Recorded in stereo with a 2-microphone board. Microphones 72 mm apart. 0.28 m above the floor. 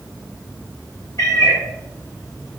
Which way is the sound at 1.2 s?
55° left (ahead or behind).